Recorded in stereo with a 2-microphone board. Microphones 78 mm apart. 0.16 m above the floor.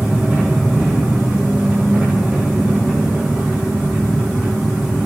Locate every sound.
0.0 s an engine running: 15° right (ahead or behind), 7.5 m